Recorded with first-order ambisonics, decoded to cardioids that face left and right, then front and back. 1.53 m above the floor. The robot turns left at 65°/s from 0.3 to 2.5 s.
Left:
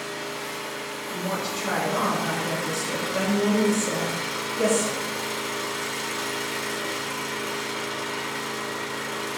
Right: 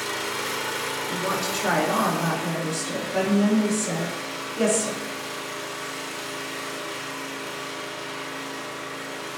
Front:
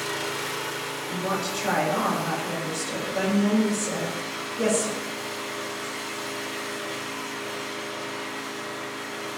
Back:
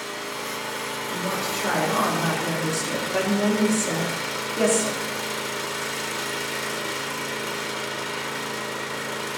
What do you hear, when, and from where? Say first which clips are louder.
0.0 s an engine running: right 4 dB, front 2 dB; 60° right, 2 m; by 9.4 s 155° left, 2 m
1.1 s a woman speaking: right 1 dB, even; 70° right, 5 m; by 5.0 s 160° right, 5 m